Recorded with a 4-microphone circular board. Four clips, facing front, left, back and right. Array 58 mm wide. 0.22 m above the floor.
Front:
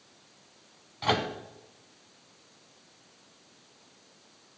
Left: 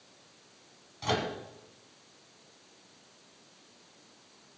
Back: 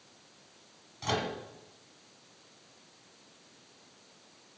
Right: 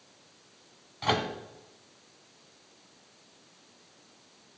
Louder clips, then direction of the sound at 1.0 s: Right 3 dB, front 5 dB; 40° right.